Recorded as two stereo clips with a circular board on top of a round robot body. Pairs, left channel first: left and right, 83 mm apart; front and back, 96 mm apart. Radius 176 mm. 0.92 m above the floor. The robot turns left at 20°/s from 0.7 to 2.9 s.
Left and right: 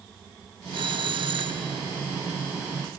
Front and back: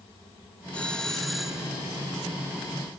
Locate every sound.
0.7 s a doorbell: 80° right; by 1.8 s 100° right